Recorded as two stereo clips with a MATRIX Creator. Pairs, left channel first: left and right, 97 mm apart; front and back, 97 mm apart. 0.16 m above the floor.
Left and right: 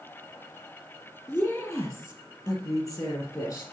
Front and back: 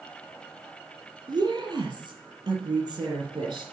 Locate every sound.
1.3 s a woman speaking: 145° left, 2.5 m; by 3.6 s 135° left, 5.5 m